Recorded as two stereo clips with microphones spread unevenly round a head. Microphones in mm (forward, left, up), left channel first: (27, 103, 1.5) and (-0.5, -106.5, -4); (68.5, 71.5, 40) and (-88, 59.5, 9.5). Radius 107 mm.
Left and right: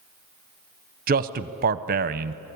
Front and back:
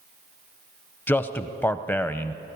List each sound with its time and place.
1.1 s a man speaking: 85° right, 0.7 m